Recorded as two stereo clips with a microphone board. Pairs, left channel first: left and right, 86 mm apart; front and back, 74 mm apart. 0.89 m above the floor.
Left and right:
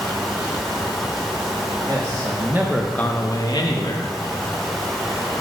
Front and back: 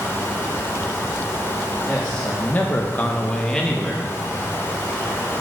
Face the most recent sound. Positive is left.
turn(degrees=85)